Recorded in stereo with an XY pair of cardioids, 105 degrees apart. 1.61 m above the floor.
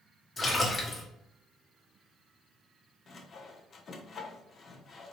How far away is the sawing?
About 0.8 m.